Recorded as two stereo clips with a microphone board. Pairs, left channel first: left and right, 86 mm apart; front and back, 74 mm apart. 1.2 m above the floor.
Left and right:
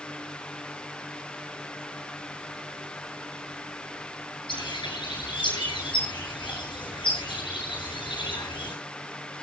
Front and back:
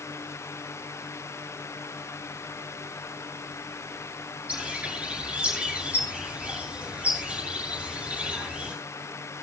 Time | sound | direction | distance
4.5 | a bird | 110° left | 8 m